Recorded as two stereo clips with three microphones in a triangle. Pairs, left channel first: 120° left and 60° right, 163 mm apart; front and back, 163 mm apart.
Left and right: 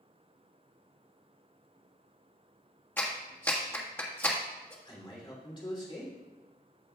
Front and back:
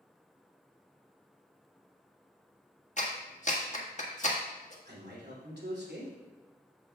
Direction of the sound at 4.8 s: Straight behind.